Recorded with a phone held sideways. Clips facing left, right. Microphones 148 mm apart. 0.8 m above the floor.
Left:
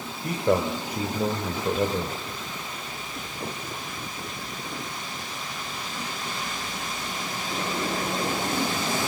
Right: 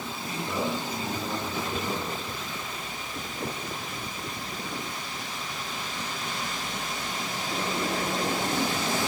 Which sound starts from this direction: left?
A man speaking, at 0.2 s.